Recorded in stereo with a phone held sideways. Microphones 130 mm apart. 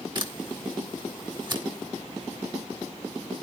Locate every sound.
0.1 s a camera shutter: 35° right (ahead or behind), 1.6 m